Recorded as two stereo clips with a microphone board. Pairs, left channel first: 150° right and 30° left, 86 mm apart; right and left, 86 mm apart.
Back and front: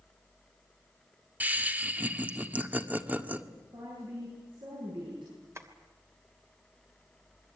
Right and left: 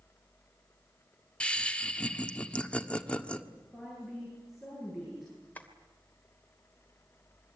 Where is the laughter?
25° right, 1.5 m.